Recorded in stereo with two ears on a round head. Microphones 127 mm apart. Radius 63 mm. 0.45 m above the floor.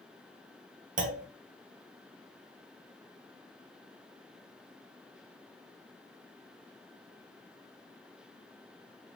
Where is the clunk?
60° right (ahead or behind), 0.6 m.